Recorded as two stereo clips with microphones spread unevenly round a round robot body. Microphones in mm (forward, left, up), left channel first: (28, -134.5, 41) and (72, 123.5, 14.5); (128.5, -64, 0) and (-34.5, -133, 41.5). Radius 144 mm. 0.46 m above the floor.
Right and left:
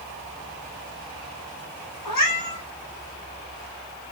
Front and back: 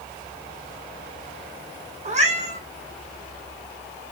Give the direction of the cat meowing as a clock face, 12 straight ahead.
4 o'clock.